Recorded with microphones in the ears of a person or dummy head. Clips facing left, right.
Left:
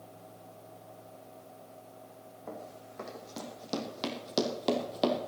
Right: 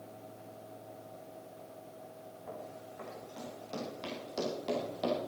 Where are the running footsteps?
55° left (ahead or behind), 3.5 m; by 5.2 s 50° left (ahead or behind), 2 m.